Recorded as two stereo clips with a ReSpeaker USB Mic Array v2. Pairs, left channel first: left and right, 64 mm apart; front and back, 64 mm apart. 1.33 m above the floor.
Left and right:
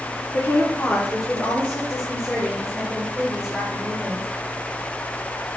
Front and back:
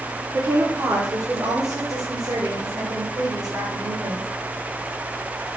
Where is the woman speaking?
140° left, 1.6 m; by 4.3 s straight behind, 3.5 m.